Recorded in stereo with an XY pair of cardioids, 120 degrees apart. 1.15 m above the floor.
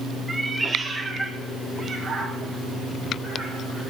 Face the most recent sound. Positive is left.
turn(degrees=-25)